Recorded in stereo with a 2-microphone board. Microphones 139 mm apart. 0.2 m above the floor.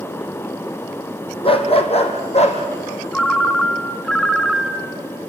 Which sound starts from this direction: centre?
A ringtone, at 3.1 s.